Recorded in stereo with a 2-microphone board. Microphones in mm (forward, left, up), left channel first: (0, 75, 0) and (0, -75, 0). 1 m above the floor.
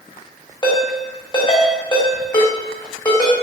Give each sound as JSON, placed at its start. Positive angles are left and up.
{"t": 0.6, "sound": "a ringtone", "side_deg": 30, "distance_m": 2.5}